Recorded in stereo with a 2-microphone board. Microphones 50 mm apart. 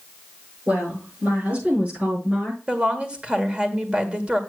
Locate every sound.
0.7 s a woman speaking: 30° right (ahead or behind), 8 m; by 2.6 s 25° right (ahead or behind), 7 m
2.7 s a woman speaking: 20° right (ahead or behind), 1.8 m